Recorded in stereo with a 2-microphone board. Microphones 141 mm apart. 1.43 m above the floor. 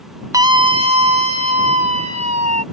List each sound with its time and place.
0.3 s a scream: 25° right (ahead or behind); by 2.6 s 55° right (ahead or behind)